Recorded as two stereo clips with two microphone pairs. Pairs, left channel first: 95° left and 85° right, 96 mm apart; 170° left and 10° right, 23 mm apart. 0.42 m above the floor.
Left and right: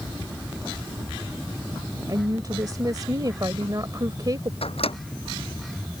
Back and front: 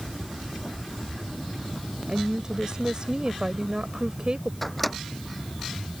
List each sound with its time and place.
2.1 s a woman speaking: 50° right
4.6 s a microwave: 85° left